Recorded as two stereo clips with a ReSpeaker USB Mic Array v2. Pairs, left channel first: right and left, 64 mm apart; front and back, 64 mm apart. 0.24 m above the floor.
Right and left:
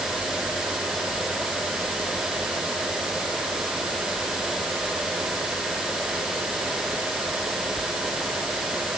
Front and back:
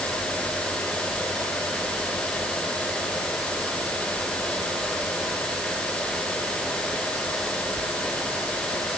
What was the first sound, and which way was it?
Only background noise.